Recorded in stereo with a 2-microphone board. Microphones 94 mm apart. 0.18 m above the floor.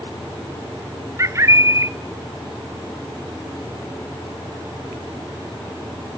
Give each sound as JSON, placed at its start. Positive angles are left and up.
{"t": 1.2, "sound": "a bird", "side_deg": -30, "distance_m": 0.6}